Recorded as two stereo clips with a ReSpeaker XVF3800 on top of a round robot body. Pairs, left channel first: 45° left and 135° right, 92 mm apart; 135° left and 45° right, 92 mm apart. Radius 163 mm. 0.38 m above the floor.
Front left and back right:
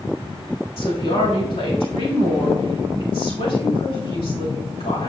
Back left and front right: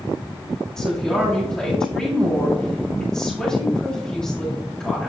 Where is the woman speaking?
55° left, 3.5 m.